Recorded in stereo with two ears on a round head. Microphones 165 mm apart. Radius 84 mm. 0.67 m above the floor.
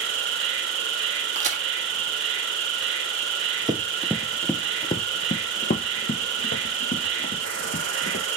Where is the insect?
75° right (ahead or behind), 1.4 m.